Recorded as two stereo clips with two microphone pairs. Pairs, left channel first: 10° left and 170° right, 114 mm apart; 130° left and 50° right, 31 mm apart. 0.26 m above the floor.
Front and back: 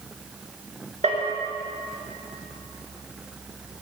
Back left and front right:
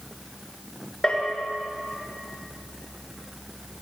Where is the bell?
165° right, 3.5 m.